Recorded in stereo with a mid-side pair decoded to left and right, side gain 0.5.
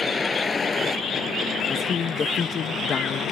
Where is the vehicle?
20° left; by 3.3 s 55° left.